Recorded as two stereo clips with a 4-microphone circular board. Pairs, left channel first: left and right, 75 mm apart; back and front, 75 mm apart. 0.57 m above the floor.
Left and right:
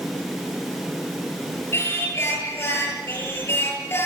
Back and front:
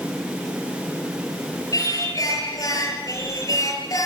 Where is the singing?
145° left, 6.5 m.